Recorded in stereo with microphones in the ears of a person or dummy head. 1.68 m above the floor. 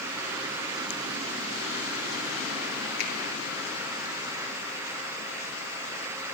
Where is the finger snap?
60° left (ahead or behind), 1.2 m.